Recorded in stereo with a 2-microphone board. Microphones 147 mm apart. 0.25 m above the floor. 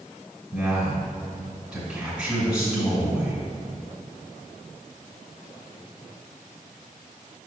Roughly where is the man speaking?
Centre.